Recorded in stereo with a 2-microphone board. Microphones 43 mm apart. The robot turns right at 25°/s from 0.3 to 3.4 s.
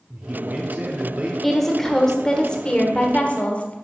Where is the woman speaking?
10° left, 1.0 m; by 3.7 s 60° left, 1.0 m.